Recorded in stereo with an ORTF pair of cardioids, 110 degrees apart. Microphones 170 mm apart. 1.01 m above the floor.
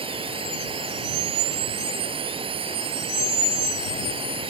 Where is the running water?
30° right.